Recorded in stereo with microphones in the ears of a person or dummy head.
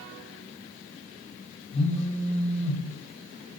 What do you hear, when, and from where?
1.7 s a phone buzzing: 30° left (ahead or behind), 0.6 m